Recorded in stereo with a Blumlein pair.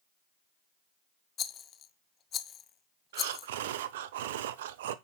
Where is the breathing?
55° right, 0.9 m.